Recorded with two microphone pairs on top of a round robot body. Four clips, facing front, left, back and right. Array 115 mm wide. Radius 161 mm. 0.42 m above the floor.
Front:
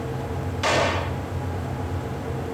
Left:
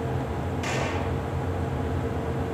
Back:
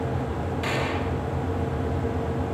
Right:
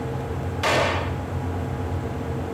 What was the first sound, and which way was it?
A gunshot, 50° right.